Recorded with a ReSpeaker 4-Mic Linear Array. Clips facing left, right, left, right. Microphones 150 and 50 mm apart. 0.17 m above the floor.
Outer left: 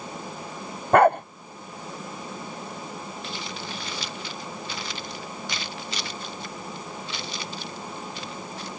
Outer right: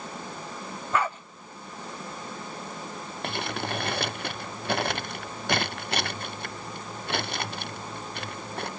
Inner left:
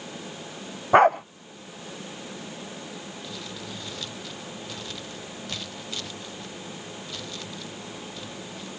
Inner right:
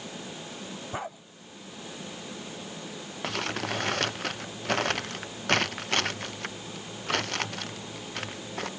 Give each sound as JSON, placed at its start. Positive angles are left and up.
{"t": 0.9, "sound": "a dog barking", "side_deg": 60}
{"t": 3.2, "sound": "crumpling", "side_deg": -60}